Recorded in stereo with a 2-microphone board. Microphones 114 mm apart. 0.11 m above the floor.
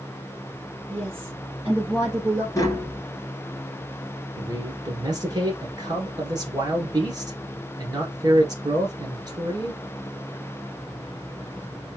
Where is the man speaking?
35° right (ahead or behind), 1.4 m.